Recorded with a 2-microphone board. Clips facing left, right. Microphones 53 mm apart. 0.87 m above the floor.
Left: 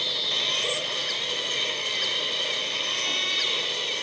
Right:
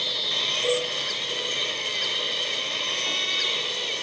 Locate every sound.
0.6 s a cowbell: 20° right (ahead or behind), 4.5 m